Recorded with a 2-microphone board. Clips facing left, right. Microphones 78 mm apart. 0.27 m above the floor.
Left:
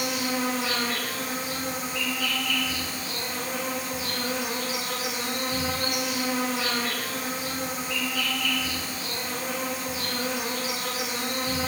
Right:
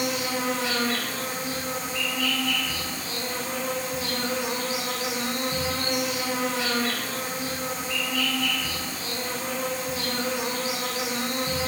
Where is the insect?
5° left (ahead or behind), 2.5 m.